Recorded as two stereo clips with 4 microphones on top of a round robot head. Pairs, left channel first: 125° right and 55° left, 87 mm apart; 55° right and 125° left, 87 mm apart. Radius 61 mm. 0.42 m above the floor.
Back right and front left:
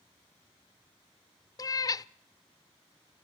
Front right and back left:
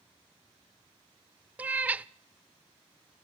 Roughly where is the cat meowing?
Behind.